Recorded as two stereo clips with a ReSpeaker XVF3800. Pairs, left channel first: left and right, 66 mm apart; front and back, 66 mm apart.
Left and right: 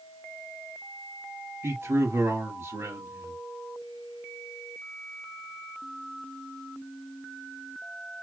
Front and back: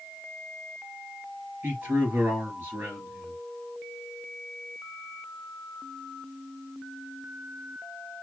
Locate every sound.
1.6 s a man speaking: 130° right, 3 m